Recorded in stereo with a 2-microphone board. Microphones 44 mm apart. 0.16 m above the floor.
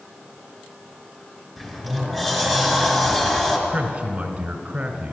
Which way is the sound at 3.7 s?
25° right (ahead or behind).